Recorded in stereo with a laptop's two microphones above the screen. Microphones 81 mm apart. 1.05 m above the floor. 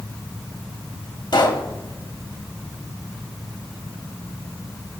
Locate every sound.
1.3 s a pop: 55° left (ahead or behind), 1.3 m